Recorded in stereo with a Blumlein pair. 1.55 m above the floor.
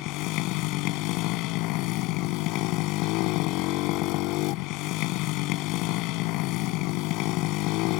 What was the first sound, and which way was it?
A motorcycle, 40° left.